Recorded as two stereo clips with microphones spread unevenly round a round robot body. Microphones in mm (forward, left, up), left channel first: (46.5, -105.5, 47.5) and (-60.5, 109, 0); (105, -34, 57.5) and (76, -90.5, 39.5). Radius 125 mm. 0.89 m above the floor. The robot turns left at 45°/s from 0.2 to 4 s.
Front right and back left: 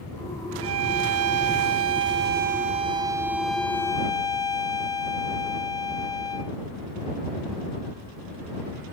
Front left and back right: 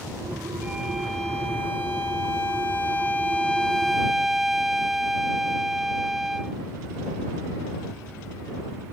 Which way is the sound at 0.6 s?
145° left.